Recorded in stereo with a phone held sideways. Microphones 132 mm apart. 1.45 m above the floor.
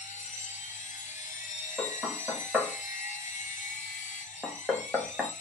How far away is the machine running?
About 0.9 m.